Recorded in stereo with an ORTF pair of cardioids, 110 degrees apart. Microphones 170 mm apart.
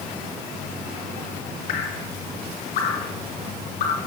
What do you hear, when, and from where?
1.7 s dripping: 65° left, 2.5 m